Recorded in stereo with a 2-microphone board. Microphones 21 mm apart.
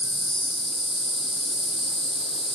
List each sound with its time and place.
0.0 s an insect: 35° left (ahead or behind), 1.2 m